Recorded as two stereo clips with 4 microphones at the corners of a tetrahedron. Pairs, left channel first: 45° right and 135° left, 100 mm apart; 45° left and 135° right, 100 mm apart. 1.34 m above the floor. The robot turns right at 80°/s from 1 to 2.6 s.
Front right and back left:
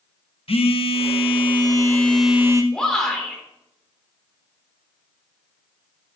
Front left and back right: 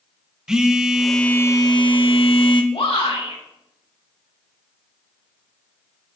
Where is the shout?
40° left, 3.5 m.